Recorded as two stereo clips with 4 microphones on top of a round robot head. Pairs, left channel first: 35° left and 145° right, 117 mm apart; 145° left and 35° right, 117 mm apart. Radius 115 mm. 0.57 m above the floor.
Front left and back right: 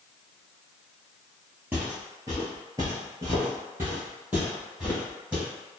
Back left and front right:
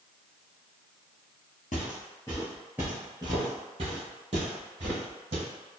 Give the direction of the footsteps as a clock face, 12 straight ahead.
7 o'clock.